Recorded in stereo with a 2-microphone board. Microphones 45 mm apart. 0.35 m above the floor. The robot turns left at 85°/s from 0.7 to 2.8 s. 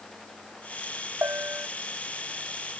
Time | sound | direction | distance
1.2 | a bell | 110° right | ?